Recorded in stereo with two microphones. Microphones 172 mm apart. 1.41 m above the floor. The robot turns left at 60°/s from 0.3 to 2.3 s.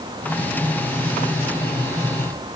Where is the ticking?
No ticking in this recording.